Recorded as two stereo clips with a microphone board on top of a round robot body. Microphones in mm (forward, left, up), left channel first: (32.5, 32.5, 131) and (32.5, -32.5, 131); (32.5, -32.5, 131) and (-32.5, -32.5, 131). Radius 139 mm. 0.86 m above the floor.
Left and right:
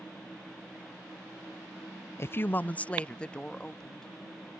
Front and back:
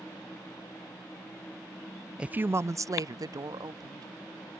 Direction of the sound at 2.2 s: 110° left.